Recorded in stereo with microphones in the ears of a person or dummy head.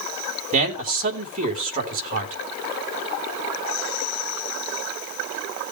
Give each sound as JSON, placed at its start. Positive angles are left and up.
{"t": 0.5, "sound": "a man speaking", "side_deg": -40, "distance_m": 3.5}